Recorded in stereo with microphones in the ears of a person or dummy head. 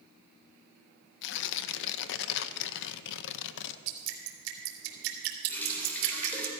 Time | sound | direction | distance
1.2 | tearing paper | 65° left (ahead or behind) | 0.6 m
3.9 | dripping | 65° right (ahead or behind) | 2.5 m
5.5 | a running tap | 10° left (ahead or behind) | 3.5 m